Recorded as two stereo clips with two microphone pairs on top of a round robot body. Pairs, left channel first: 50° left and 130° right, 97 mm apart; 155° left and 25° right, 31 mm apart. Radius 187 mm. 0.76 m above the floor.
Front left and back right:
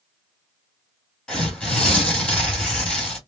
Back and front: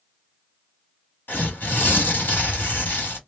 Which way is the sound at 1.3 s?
130° left.